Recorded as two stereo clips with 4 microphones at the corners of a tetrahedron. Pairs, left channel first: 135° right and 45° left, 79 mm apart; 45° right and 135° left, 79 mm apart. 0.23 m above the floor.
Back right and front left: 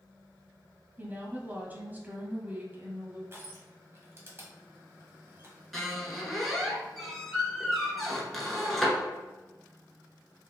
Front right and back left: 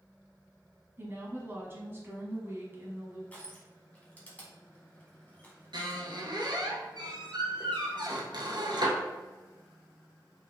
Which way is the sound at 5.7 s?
135° left.